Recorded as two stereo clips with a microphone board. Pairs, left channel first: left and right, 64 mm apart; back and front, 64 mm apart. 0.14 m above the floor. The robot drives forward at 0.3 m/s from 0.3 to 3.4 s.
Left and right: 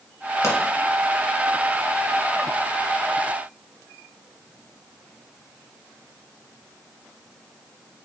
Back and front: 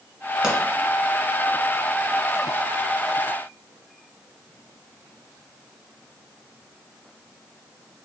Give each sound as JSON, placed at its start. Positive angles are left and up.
{"t": 0.4, "sound": "a pop", "azimuth_deg": 75, "distance_m": 1.7}